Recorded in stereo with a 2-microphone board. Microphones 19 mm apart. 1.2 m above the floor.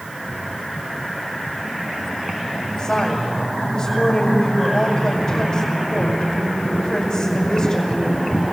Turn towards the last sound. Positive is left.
turn(degrees=40)  # may be behind; listen again after turning